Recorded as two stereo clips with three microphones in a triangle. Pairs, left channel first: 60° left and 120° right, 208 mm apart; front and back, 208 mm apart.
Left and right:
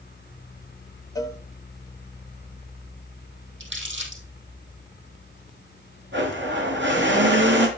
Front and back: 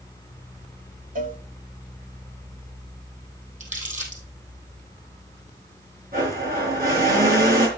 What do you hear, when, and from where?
1.1 s a cowbell: 130° left, 1.0 m
3.6 s crumpling: 130° right, 3.5 m
6.1 s a blender: 140° right, 4.5 m